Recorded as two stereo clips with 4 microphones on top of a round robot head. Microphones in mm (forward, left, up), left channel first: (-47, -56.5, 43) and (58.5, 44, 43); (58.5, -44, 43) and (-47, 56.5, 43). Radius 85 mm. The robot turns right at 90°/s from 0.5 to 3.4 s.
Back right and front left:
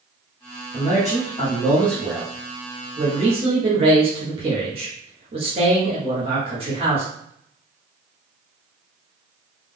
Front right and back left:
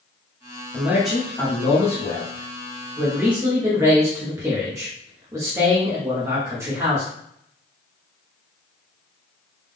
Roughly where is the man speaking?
Behind.